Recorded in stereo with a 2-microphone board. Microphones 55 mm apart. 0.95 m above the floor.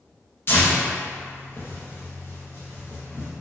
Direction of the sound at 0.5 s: 45° left (ahead or behind).